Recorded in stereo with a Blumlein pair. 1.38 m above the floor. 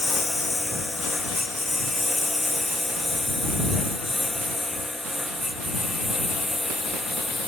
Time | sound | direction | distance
0.0 | a lawn mower | 5° left | ?